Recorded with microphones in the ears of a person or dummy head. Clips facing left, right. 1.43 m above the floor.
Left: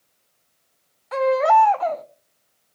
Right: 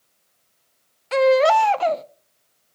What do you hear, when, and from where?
1.1 s a baby crying: 35° right (ahead or behind), 0.5 m